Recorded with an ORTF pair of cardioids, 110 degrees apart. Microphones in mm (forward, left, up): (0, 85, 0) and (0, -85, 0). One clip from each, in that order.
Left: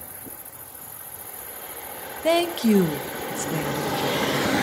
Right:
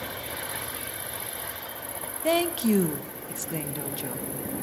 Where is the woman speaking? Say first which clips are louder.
Left 4 dB; 15° left, 0.8 m.